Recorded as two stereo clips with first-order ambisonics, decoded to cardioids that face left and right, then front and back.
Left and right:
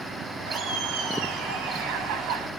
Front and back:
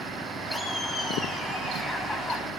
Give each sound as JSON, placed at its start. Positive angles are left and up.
{"t": 0.5, "sound": "laughter", "azimuth_deg": -85, "distance_m": 1.8}